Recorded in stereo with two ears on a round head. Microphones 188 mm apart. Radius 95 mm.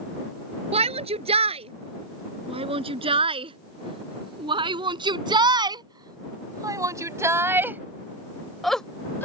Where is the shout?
30° right (ahead or behind); by 9.2 s 10° left (ahead or behind).